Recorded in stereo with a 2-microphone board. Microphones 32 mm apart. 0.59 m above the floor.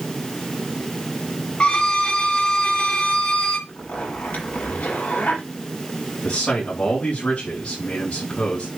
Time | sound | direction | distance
1.6 | a violin | 30° left (ahead or behind) | 2 m
3.7 | a zipper | 50° left (ahead or behind) | 7.5 m
6.2 | a man speaking | 40° left (ahead or behind) | 7 m